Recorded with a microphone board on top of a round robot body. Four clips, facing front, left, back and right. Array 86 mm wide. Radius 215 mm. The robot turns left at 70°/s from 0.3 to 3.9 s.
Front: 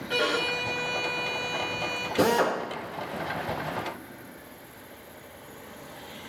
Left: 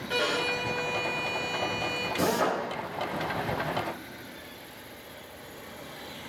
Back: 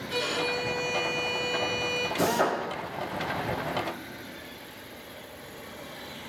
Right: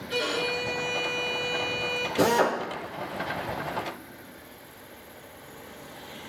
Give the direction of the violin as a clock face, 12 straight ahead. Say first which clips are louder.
Even, front 3 dB; 10 o'clock.